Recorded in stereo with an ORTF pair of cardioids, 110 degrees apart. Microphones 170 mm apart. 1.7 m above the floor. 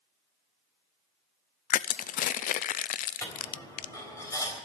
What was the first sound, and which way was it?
Crushing, 60° left.